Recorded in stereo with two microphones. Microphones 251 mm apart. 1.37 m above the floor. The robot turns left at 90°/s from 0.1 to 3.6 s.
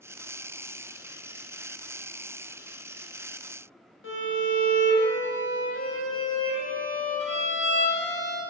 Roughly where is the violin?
Left.